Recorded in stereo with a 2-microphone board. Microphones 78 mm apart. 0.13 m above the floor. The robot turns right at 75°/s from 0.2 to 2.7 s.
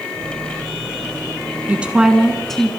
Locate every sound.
1.7 s a woman speaking: 15° right (ahead or behind), 1.1 m; by 2.7 s 10° left (ahead or behind), 1.1 m